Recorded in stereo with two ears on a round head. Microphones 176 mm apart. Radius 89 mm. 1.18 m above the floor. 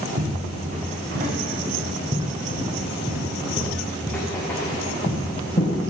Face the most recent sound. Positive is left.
turn(degrees=25)  # may be behind; listen again after turning